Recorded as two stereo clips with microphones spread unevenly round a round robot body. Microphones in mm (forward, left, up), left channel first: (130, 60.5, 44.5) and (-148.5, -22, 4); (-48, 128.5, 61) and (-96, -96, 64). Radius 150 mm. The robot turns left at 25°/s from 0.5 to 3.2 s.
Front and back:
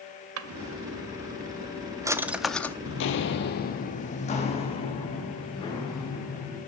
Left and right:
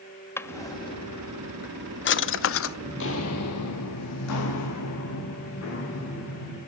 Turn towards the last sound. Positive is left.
turn(degrees=95)